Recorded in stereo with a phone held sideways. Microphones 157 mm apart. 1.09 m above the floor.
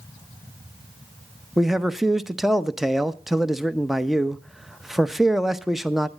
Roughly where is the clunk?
No clunk in this recording.